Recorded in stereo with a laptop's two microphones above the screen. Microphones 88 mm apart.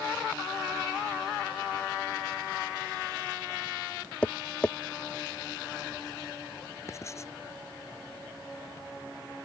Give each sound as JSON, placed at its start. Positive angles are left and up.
{"t": 4.2, "sound": "tapping", "side_deg": 15}
{"t": 6.9, "sound": "writing", "side_deg": 35}